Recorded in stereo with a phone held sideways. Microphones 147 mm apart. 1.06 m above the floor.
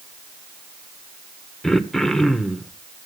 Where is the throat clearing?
5° left (ahead or behind), 0.9 m.